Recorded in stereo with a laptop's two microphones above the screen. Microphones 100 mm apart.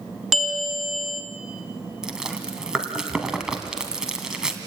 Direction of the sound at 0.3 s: Centre (ahead or behind).